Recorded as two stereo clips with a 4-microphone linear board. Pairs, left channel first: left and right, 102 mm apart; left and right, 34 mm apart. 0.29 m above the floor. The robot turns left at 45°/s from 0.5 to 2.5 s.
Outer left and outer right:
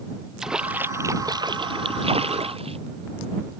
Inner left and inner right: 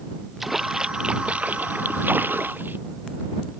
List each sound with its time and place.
0.4 s a splash: 5° right; by 2.8 s 95° right